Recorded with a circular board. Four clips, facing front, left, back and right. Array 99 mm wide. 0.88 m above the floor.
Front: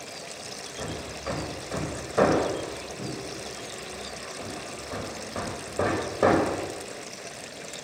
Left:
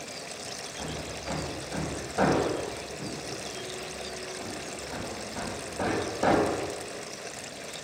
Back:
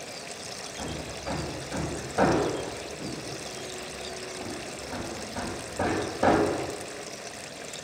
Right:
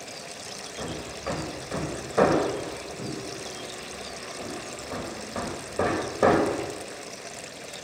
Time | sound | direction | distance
0.8 | hammering | 50° right | 4 m